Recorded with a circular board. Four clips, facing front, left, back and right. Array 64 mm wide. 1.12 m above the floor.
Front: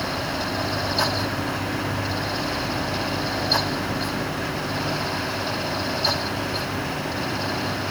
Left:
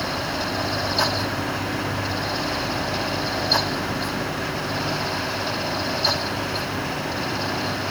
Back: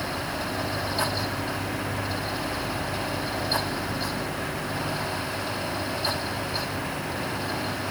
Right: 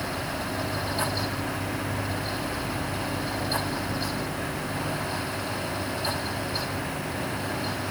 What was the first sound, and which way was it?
Only background noise.